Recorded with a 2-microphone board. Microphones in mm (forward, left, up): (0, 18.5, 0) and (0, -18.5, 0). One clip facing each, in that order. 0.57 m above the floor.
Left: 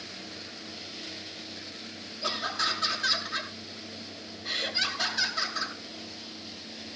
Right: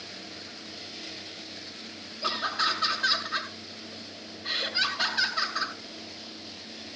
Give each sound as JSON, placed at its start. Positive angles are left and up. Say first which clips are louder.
{"t": 2.2, "sound": "laughter", "louder": "right 2 dB", "side_deg": -30, "distance_m": 7.5}